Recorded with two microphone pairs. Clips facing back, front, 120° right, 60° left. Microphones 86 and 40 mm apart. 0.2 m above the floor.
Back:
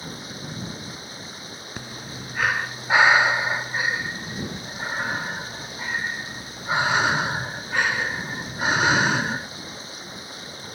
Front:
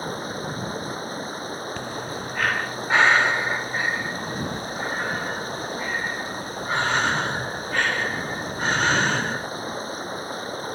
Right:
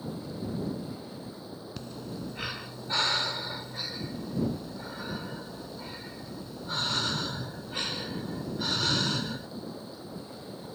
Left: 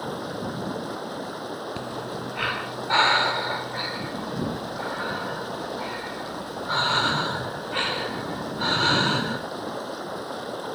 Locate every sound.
0.0 s running water: 45° left
1.8 s breathing: 100° left